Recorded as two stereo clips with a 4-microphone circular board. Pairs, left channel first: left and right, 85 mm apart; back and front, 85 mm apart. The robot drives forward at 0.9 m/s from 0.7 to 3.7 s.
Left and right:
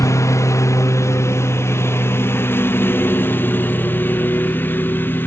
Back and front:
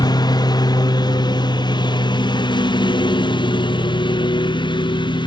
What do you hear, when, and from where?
0.0 s a lawn mower: 145° left; by 5.3 s 155° left